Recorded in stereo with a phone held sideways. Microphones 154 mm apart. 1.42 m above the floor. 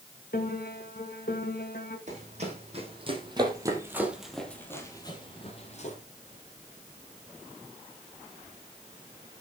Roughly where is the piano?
Left.